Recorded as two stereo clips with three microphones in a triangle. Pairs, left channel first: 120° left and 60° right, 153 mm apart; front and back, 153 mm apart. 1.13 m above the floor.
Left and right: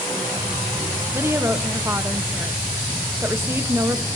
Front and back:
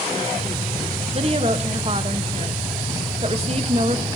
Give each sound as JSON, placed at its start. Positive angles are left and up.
{"t": 1.1, "sound": "a woman speaking", "azimuth_deg": -135, "distance_m": 1.1}